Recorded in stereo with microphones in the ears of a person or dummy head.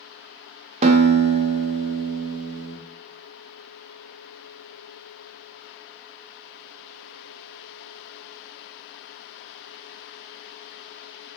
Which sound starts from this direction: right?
A guitar, at 0.8 s.